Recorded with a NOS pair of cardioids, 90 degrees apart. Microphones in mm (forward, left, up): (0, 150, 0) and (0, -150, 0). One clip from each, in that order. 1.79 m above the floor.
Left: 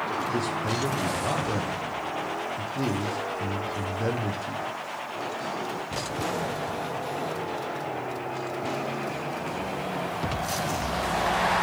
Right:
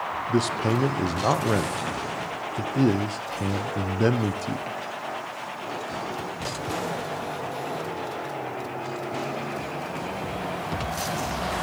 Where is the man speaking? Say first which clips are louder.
Right 3 dB; 45° right, 1.1 m.